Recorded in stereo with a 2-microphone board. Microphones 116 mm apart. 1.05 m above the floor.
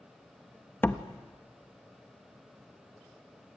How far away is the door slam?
About 1.0 m.